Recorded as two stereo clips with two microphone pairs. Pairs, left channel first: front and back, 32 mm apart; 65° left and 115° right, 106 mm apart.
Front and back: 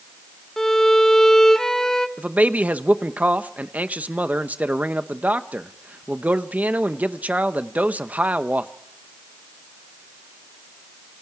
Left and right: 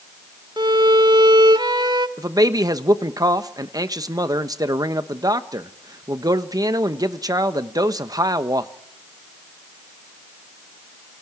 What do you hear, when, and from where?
0.6 s a violin: 75° right, 1.3 m
2.2 s a man speaking: 160° right, 1.0 m